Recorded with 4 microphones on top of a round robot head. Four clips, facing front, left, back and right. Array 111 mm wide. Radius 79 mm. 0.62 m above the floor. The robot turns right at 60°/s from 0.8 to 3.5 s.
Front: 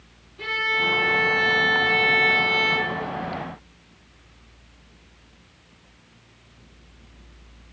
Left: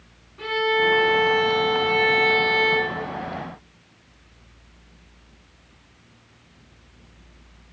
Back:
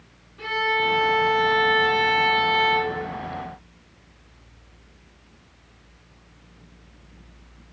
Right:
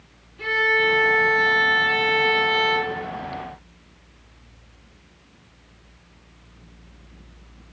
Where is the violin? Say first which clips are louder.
Even, back 3 dB; 115° left, 3.5 m; by 3.0 s 115° right, 3.5 m.